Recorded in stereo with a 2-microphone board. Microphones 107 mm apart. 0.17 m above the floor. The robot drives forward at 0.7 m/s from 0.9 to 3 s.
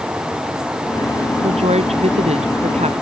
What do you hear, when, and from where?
1.4 s a woman speaking: 85° right